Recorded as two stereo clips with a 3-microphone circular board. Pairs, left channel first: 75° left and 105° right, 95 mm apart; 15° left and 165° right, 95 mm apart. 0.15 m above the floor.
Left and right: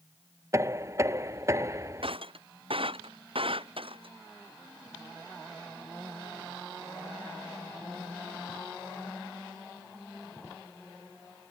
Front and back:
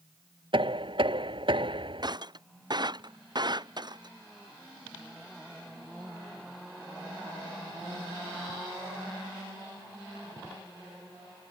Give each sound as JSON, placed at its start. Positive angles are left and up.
{"t": 0.5, "sound": "knocking", "azimuth_deg": -160}
{"t": 2.0, "sound": "breaking glass", "azimuth_deg": -125}